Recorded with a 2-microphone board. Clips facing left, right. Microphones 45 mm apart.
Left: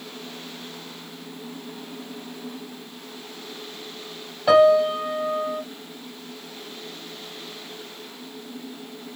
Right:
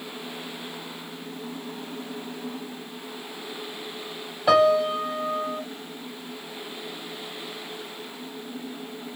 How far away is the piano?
About 0.9 m.